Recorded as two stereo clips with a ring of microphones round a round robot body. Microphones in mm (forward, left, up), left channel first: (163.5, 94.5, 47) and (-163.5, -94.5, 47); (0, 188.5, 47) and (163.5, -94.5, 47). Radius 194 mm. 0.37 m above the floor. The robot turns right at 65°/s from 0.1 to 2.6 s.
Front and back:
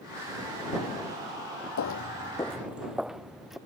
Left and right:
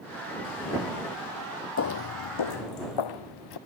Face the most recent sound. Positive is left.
turn(degrees=120)